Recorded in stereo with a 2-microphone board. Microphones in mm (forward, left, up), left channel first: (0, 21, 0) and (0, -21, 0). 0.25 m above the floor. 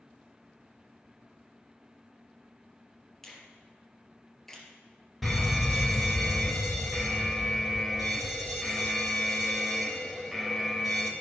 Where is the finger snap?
10° left (ahead or behind), 3 m.